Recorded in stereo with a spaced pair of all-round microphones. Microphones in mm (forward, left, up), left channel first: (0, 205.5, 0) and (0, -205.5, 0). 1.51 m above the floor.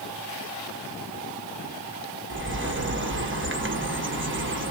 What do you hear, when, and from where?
2.3 s a bird: 30° right (ahead or behind), 1.1 m